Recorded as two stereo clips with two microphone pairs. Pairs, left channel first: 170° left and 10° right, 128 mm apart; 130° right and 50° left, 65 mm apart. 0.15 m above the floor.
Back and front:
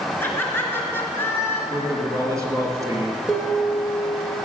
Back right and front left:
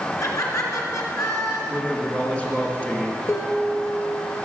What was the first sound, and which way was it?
Laughter, 120° right.